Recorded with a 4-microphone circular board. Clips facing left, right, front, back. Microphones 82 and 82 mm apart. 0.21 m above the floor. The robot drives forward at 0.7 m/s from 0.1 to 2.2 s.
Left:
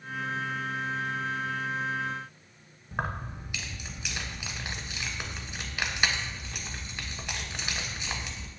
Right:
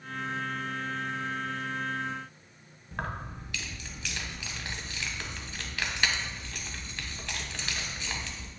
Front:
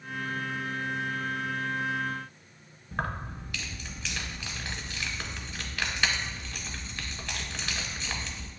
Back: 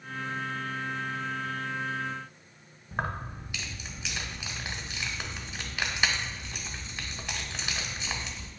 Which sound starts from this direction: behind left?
Keys jangling, at 2.9 s.